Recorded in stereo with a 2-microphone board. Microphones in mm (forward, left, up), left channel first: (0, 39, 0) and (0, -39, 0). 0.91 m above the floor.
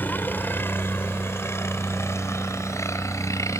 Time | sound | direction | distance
0.0 | a helicopter | 25° left (ahead or behind) | ?